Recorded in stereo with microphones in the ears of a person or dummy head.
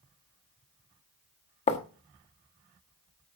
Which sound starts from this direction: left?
Writing, at 1.7 s.